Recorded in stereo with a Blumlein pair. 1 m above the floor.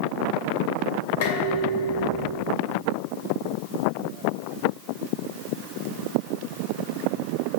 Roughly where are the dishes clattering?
Ahead left.